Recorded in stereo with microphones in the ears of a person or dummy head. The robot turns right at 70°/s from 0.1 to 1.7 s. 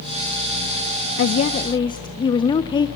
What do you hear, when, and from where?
1.2 s a woman speaking: 120° left, 0.6 m; by 2.9 s 155° left, 0.6 m